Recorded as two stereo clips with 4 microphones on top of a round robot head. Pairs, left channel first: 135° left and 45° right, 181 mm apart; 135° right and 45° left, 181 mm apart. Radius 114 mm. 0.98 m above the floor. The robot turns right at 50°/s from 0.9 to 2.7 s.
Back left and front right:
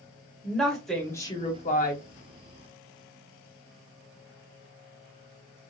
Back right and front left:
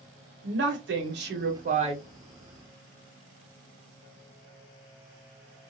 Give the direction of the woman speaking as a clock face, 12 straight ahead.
10 o'clock.